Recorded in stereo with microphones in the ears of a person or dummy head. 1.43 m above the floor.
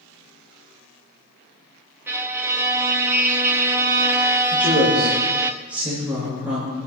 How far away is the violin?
About 0.8 m.